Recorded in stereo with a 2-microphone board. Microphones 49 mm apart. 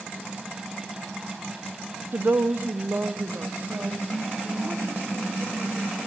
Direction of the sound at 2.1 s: 55° right (ahead or behind).